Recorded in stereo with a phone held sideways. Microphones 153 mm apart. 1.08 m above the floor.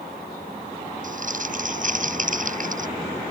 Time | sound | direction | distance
1.0 | crumpling | 55° right (ahead or behind) | ?